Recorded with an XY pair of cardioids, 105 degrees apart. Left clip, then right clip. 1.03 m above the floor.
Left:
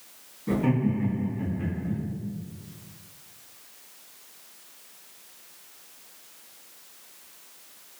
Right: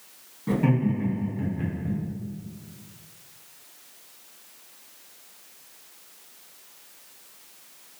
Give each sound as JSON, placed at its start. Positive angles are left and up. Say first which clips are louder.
{"t": 0.5, "sound": "laughter", "louder": "right 1 dB", "azimuth_deg": -45, "distance_m": 1.8}